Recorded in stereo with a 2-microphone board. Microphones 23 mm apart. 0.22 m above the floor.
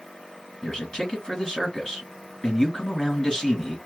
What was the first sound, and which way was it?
A man speaking, 35° left (ahead or behind).